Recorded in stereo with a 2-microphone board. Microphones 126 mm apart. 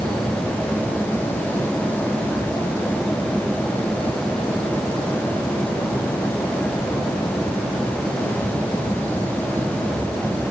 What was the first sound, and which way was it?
Only background noise.